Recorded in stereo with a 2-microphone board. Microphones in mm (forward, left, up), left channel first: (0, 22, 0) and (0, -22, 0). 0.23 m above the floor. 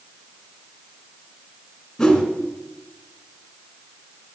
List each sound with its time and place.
2.0 s a whoosh: 5° left (ahead or behind), 2 m